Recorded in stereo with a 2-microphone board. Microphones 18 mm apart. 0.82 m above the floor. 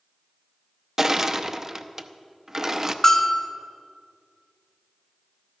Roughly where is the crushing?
Right.